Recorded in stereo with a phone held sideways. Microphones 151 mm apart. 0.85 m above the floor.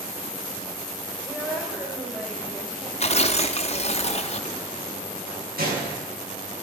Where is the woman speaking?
10° right (ahead or behind), 4 m; by 2.9 s 5° right (ahead or behind), 5 m.